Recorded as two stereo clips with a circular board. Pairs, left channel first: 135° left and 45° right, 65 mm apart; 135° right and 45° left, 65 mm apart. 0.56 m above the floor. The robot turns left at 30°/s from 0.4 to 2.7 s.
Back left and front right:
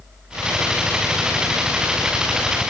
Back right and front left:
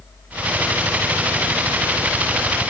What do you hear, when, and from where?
Only background noise.